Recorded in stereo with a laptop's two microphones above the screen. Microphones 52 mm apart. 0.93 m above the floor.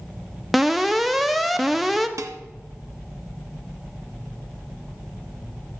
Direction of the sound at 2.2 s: 85° right.